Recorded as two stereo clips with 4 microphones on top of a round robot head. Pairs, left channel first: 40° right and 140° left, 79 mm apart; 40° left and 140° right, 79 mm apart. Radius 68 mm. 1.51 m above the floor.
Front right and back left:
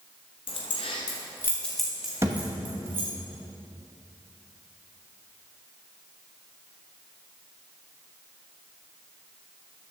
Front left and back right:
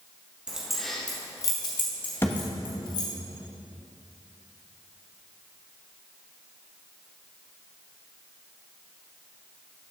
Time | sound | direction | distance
0.5 | keys jangling | 60° right | 0.9 m
2.2 | a thud | 95° left | 0.9 m